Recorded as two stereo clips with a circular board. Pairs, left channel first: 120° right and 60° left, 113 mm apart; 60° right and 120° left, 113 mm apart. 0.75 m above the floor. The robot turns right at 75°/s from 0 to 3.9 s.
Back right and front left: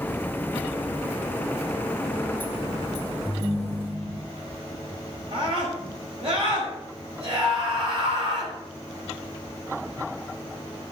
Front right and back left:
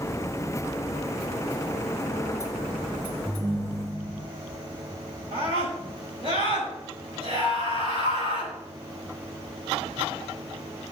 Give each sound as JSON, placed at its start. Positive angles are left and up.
{"t": 3.2, "sound": "a ringtone", "azimuth_deg": 5, "distance_m": 4.5}
{"t": 5.3, "sound": "a scream", "azimuth_deg": 80, "distance_m": 5.0}